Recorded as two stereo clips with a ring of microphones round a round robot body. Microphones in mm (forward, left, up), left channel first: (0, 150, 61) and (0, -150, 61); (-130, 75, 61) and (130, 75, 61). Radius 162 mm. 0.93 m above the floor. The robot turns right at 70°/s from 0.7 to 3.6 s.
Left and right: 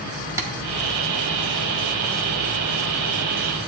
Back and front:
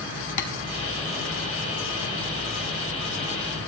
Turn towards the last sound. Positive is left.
turn(degrees=35)